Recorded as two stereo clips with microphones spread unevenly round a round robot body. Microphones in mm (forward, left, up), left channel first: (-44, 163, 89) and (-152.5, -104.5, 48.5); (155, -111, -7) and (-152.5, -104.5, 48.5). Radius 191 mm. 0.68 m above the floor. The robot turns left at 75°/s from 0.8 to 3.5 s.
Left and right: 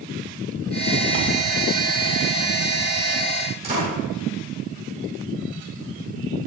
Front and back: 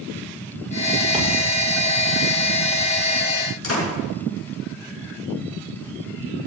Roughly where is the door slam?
Ahead right.